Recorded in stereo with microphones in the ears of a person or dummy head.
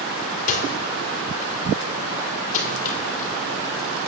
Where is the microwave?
45° left (ahead or behind), 3 m.